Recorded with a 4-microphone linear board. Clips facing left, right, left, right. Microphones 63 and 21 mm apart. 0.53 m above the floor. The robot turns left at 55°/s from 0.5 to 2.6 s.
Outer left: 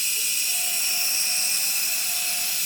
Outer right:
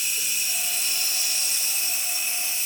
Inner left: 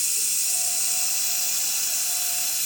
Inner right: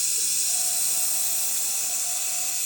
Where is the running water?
170° right, 1.7 m; by 2.7 s 70° left, 1.7 m.